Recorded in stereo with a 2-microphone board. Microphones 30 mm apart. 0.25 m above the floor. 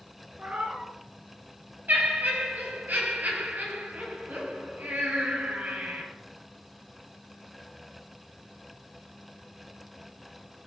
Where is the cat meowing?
50° right (ahead or behind), 1.4 m.